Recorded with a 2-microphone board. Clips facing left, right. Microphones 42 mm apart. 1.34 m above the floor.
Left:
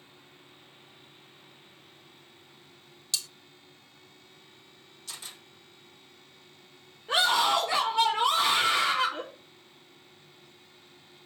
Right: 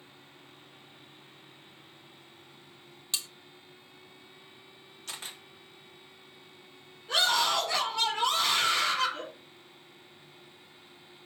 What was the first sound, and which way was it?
Cutlery clinking, 25° right (ahead or behind).